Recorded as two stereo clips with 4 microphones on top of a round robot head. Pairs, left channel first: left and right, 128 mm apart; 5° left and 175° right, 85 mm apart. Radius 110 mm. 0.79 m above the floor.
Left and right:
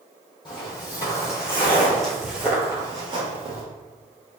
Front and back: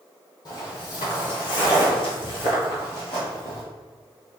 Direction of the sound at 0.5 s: 40° left.